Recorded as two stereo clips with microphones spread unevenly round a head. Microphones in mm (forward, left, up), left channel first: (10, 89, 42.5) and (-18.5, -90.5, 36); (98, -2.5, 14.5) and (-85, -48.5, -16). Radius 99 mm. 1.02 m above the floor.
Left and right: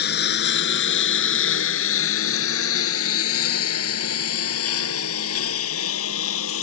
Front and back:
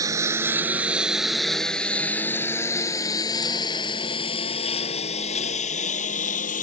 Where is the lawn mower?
120° left; by 6.6 s 65° left.